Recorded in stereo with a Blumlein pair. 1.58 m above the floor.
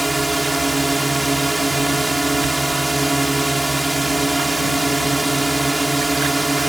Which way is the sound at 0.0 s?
10° right.